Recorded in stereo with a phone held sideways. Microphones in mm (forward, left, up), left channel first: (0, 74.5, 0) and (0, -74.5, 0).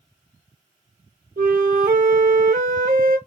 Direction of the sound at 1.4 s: 70° right (ahead or behind).